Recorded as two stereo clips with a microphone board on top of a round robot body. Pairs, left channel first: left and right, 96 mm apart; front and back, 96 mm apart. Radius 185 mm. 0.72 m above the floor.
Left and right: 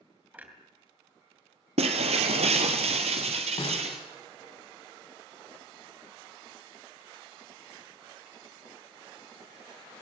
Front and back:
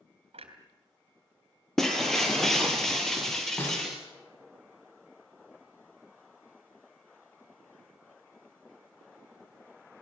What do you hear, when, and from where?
0.3 s a clunk: 165° right, 3.5 m
1.8 s breaking glass: 85° right, 1.1 m
3.6 s a snare drum: 70° left, 6.5 m